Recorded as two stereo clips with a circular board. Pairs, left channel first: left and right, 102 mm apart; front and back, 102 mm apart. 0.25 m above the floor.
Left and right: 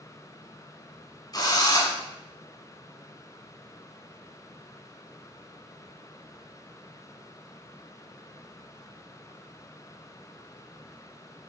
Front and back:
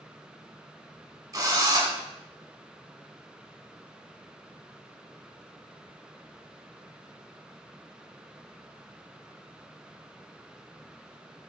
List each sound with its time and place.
1.3 s a drill: 130° left, 1.6 m